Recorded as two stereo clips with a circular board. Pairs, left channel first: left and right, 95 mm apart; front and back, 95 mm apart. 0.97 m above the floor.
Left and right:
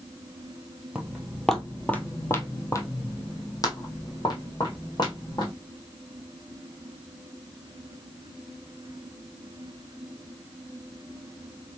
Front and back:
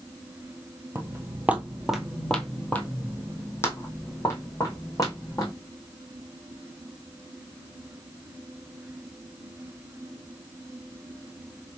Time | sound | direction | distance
0.9 | footsteps | 160° right | 1.1 m